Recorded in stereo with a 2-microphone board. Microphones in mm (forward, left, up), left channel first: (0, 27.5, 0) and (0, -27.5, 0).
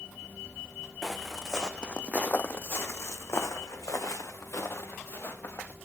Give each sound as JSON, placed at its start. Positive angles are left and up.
{"t": 1.0, "sound": "footsteps", "side_deg": 0, "distance_m": 1.3}